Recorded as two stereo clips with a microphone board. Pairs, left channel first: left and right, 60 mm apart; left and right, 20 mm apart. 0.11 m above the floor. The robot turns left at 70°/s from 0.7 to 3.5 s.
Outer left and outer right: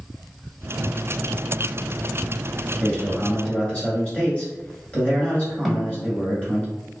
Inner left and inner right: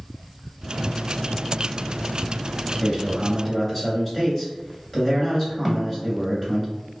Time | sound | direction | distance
2.8 | a man speaking | 15° left (ahead or behind) | 1.8 m
5.7 | a snare drum | centre (ahead or behind) | 0.9 m